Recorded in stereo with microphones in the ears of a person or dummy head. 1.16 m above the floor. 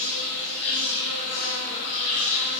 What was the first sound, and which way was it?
An insect, 45° left (ahead or behind).